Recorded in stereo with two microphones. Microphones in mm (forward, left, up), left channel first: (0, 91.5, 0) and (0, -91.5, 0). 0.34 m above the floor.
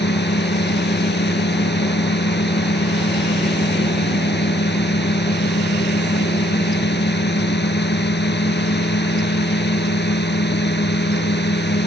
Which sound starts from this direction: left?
A drone, at 0.0 s.